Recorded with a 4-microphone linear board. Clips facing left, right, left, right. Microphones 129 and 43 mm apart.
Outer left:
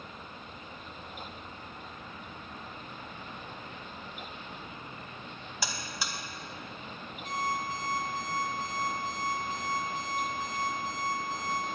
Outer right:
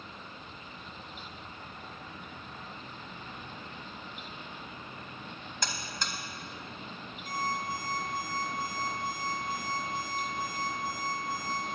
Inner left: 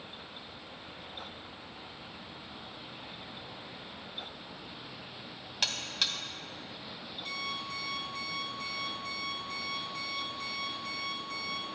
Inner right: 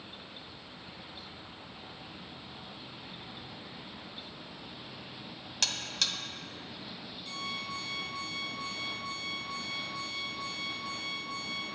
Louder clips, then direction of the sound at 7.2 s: Outer left 1 dB, inner left 1 dB; 75° left (ahead or behind).